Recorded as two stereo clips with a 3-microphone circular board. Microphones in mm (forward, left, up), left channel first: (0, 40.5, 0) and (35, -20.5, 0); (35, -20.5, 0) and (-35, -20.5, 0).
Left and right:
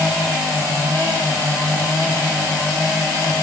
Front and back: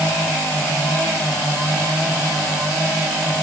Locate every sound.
Only background noise.